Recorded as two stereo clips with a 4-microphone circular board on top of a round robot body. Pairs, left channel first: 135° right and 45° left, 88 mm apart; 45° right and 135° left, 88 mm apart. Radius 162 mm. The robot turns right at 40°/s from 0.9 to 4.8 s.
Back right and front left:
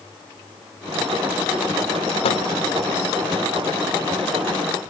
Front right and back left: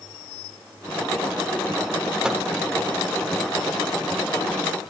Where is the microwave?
140° right, 0.6 m; by 2.5 s 135° right, 0.6 m.